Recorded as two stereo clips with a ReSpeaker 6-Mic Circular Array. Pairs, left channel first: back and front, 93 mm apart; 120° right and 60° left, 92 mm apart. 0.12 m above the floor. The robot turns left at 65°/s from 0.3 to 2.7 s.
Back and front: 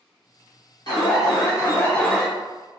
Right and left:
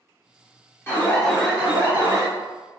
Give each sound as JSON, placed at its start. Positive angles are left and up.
{"t": 0.9, "sound": "an alarm", "azimuth_deg": -175, "distance_m": 1.5}